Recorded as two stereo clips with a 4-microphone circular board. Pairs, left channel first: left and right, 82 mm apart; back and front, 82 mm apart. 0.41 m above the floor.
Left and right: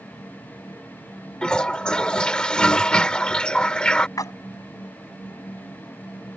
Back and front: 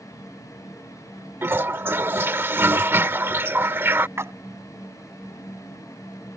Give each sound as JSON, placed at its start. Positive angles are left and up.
{"t": 1.4, "sound": "a toilet flushing", "azimuth_deg": 20}
{"t": 4.2, "sound": "a splash", "azimuth_deg": 55}